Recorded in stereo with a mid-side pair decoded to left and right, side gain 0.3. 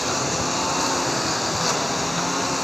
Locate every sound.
0.0 s a lawn mower: 15° left